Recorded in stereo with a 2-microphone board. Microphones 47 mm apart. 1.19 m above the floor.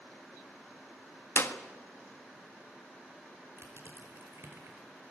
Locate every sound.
1.4 s a clap: 70° left (ahead or behind), 1.5 m
3.6 s crushing: 80° right, 5 m